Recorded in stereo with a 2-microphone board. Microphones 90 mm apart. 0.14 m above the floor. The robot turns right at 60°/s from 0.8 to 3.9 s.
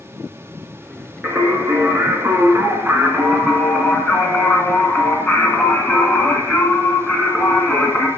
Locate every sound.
1.2 s singing: 135° right, 1.7 m; by 8.1 s 25° left, 1.7 m